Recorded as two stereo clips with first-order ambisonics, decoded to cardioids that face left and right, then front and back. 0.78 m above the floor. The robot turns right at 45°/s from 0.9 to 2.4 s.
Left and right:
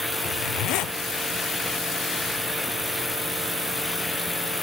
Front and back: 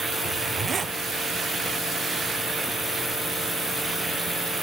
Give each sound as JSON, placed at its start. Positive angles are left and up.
{"t": 0.2, "sound": "a zipper", "azimuth_deg": 115, "distance_m": 0.6}